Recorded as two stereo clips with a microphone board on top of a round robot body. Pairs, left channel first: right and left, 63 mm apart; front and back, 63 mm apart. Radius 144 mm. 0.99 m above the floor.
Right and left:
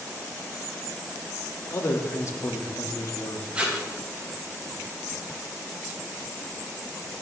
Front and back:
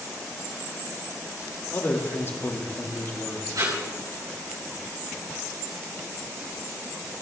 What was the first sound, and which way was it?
A man speaking, 50° right.